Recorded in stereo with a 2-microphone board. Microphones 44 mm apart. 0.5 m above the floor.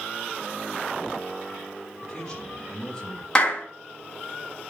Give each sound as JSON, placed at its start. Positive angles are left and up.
{"t": 2.0, "sound": "a man speaking", "side_deg": 15, "distance_m": 4.0}
{"t": 3.4, "sound": "a clap", "side_deg": 15, "distance_m": 3.5}